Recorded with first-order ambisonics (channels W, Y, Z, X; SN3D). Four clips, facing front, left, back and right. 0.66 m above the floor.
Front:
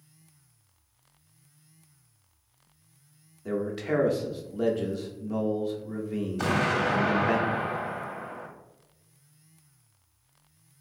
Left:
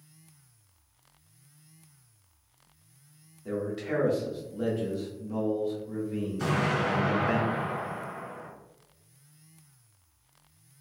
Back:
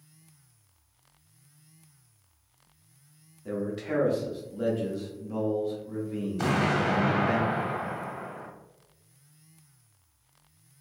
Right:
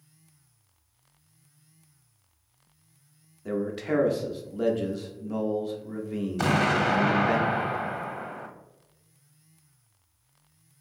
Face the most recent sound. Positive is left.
turn(degrees=-90)